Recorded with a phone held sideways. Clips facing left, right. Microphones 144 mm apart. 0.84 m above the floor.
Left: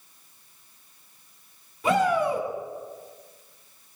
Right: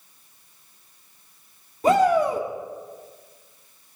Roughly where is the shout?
Right.